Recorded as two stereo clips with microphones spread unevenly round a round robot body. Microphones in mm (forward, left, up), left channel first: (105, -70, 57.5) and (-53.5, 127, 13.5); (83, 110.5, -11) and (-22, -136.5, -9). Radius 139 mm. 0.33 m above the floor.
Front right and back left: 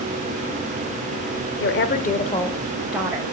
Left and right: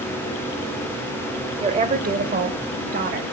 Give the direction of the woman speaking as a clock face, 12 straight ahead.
2 o'clock.